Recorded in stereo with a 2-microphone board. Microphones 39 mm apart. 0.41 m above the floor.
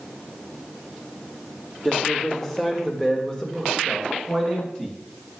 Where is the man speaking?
10° left (ahead or behind), 1.5 m; by 5.0 s 15° left (ahead or behind), 3.5 m.